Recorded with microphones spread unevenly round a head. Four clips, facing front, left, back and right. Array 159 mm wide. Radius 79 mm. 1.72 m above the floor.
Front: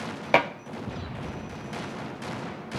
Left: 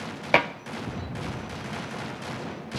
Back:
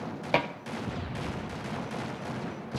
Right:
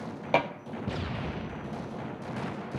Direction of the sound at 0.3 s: 30° left.